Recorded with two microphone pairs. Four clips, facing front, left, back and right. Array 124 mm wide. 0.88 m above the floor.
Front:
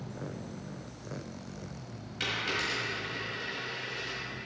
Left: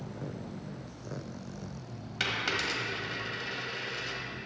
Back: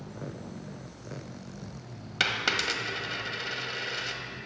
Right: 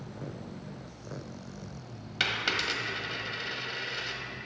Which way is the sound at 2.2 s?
170° right.